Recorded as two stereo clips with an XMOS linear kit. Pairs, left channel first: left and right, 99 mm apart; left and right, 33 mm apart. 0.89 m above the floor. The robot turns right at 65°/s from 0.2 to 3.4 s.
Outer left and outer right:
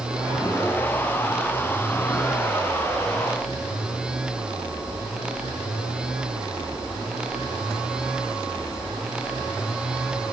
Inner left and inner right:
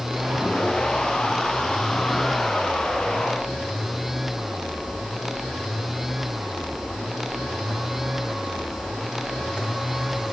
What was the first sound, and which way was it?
Only background noise.